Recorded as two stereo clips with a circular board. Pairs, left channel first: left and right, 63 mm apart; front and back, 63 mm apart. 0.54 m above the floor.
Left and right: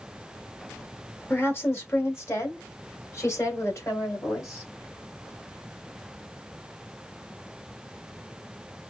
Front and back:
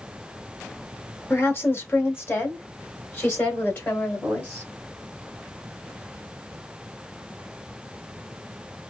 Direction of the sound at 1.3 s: 45° left.